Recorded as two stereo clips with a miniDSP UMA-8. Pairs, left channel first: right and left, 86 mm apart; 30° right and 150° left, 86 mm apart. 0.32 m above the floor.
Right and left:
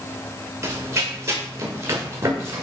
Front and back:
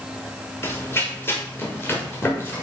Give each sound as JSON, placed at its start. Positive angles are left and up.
{"t": 0.6, "sound": "running footsteps", "azimuth_deg": 35, "distance_m": 3.5}